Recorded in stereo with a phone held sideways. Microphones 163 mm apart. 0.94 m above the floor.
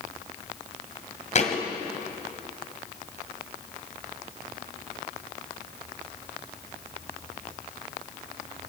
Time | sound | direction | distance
1.4 | a thud | 45° left (ahead or behind) | 1.8 m